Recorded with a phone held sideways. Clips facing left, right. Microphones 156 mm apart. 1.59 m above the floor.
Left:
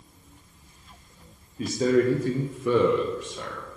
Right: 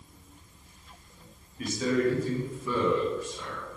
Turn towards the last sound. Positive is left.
turn(degrees=65)  # may be behind; listen again after turning